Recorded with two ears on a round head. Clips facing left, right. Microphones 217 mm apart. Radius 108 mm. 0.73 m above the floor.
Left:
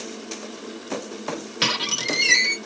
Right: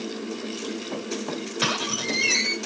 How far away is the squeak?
About 2.0 m.